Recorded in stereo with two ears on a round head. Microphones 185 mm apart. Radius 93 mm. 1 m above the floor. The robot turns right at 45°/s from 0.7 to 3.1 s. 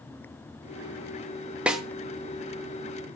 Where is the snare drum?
5° right (ahead or behind), 0.7 m; by 1.8 s centre (ahead or behind), 0.7 m.